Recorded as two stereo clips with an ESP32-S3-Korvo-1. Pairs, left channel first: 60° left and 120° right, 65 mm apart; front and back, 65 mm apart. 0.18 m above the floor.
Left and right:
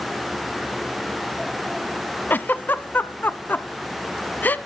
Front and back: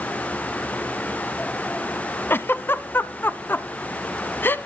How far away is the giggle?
About 0.5 m.